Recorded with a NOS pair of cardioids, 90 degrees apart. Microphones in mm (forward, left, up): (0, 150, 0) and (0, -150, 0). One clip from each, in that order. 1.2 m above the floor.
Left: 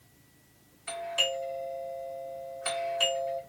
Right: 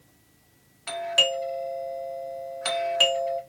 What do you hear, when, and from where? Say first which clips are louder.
0.9 s a doorbell: right 7 dB; 65° right, 1.1 m